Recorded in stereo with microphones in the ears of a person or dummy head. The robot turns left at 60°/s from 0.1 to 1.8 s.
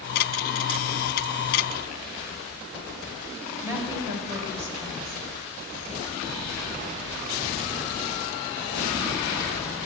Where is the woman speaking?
15° right (ahead or behind), 5 m.